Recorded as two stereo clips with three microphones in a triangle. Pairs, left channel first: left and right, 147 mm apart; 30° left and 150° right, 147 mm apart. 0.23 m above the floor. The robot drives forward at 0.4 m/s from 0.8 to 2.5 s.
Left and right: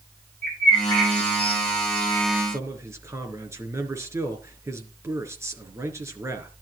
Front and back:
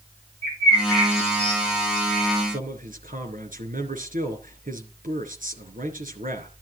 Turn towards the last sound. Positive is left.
turn(degrees=-160)